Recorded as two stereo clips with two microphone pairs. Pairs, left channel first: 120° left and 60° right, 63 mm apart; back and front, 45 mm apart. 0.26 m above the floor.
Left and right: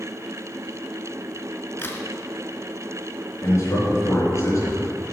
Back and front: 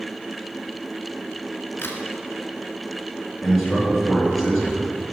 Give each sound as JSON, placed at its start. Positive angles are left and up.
{"t": 1.8, "sound": "a crack", "azimuth_deg": 160, "distance_m": 1.4}
{"t": 3.4, "sound": "a man speaking", "azimuth_deg": 95, "distance_m": 3.5}